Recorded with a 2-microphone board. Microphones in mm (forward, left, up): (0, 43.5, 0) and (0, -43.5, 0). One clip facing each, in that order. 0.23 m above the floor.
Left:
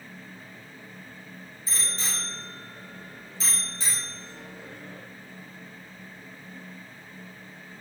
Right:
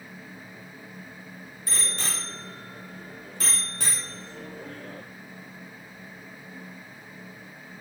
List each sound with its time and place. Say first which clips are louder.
1.7 s a bicycle bell: right 2 dB; 65° right (ahead or behind), 4.5 m